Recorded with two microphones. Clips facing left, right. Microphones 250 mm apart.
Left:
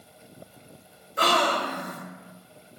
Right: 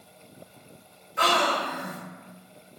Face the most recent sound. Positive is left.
turn(degrees=40)  # may be behind; listen again after turning